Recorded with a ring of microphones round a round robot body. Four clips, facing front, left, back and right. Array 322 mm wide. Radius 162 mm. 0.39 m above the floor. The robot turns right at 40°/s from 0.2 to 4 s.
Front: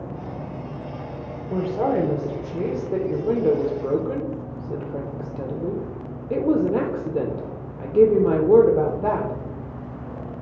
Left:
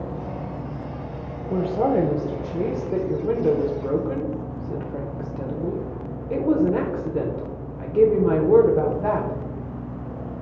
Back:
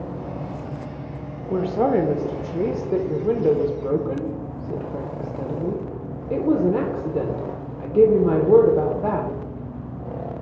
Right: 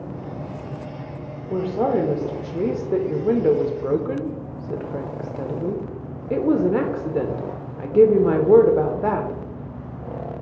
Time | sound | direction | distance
1.5 | a woman speaking | 175° left | 0.8 m